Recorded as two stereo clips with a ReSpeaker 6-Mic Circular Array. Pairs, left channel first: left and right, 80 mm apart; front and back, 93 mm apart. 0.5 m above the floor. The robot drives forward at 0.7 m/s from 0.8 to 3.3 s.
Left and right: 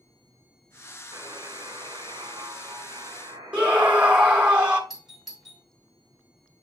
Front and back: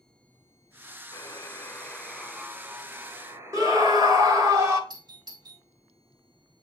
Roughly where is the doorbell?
Behind.